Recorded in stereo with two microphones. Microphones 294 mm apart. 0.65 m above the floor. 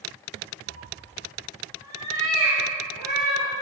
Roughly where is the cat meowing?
Right.